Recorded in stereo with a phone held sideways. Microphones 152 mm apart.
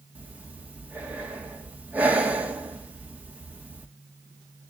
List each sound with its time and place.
0.1 s breathing: 10° right (ahead or behind), 1.7 m